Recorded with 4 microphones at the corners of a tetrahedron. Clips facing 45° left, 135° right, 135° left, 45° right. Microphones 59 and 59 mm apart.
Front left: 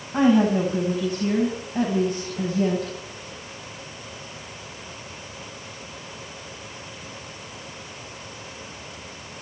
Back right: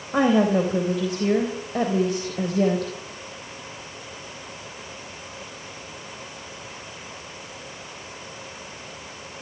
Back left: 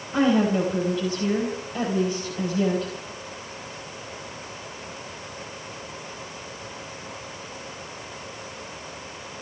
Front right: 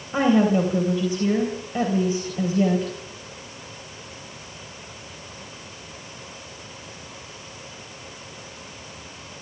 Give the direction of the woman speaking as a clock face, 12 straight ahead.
4 o'clock.